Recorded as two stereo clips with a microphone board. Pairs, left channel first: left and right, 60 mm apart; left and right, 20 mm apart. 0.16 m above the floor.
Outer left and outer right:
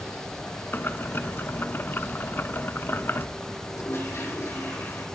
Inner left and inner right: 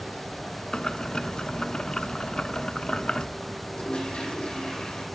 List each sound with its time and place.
0.7 s boiling: 40° left (ahead or behind), 0.6 m
3.7 s a toilet flushing: 50° left (ahead or behind), 6 m